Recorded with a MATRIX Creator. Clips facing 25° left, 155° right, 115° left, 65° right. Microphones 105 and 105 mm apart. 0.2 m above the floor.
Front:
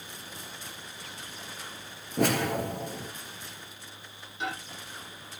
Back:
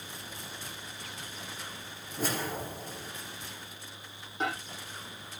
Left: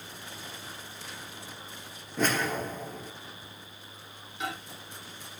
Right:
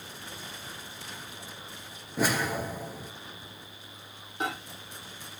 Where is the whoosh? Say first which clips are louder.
Front 7 dB, even; 15° left, 2 m.